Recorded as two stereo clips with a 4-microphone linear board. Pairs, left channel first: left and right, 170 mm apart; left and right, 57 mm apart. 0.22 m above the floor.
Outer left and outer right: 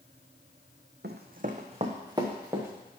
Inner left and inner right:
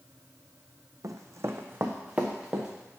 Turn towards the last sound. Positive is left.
turn(degrees=-15)  # may be behind; listen again after turning